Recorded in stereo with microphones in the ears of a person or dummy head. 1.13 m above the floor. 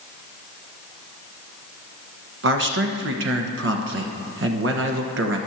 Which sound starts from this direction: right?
A man speaking, at 2.4 s.